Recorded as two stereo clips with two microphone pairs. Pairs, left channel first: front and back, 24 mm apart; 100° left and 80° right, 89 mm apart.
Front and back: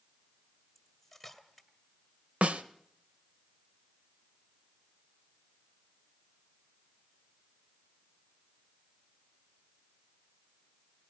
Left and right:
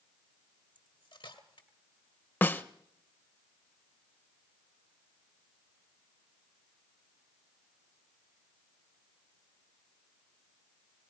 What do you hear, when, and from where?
0.8 s cutlery clinking: 85° left, 1.9 m
2.4 s a snare drum: 160° left, 0.9 m